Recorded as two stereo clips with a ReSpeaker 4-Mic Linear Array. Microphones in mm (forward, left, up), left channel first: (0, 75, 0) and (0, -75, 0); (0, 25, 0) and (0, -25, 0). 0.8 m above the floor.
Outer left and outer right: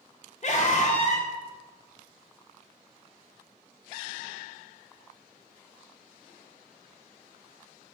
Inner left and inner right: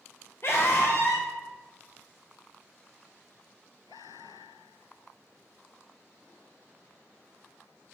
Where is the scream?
50° left (ahead or behind), 0.5 m.